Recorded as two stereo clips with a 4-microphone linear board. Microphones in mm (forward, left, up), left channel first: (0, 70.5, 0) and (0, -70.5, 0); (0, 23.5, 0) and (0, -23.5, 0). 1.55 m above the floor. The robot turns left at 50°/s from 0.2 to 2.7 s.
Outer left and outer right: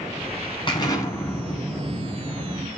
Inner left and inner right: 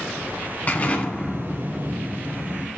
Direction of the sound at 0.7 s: 50° left.